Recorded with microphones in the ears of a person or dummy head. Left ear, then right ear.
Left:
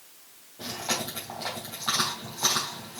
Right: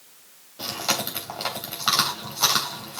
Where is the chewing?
50° right (ahead or behind), 3 m.